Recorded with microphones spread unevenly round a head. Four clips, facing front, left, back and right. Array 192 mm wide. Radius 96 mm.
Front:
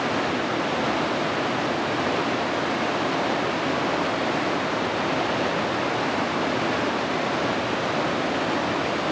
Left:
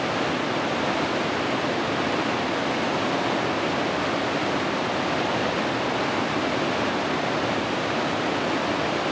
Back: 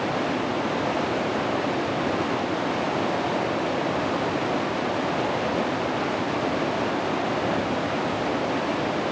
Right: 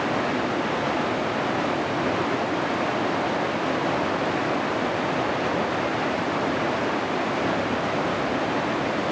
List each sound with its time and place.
Only background noise.